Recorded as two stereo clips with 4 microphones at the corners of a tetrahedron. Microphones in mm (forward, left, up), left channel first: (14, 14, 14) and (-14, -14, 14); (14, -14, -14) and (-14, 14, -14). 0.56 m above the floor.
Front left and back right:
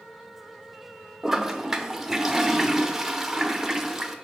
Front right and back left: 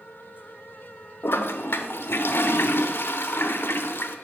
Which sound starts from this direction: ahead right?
A toilet flushing, at 1.2 s.